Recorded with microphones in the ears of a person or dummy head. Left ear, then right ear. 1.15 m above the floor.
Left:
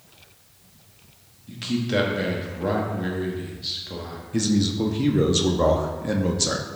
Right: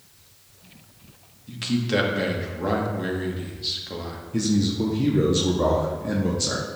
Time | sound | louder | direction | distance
1.5 | a man speaking | right 1 dB | 5° right (ahead or behind) | 1.1 m
4.3 | a man speaking | left 1 dB | 20° left (ahead or behind) | 0.6 m